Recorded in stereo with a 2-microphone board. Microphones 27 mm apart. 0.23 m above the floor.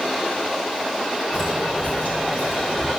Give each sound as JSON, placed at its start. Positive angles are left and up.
{"t": 1.3, "sound": "footsteps", "side_deg": 65, "distance_m": 3.0}